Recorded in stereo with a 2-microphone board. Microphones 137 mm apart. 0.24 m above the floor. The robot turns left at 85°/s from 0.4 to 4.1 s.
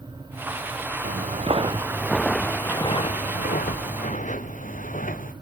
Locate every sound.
1.0 s footsteps: 75° right (ahead or behind), 1.4 m; by 5.3 s 80° left, 2 m